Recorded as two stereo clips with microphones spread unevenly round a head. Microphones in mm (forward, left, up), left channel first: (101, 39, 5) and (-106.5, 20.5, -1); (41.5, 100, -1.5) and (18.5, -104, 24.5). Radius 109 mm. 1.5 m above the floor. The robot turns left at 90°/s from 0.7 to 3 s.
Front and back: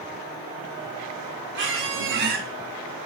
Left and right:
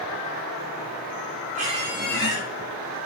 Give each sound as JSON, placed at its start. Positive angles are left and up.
{"t": 1.6, "sound": "a squeak", "azimuth_deg": -140, "distance_m": 2.5}